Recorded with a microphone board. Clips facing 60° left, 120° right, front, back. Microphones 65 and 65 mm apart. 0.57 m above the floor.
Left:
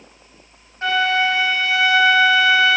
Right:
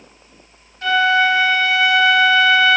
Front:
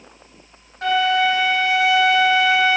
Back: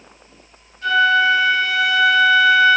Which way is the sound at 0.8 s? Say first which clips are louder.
Right 3 dB, back 3 dB; 5° right.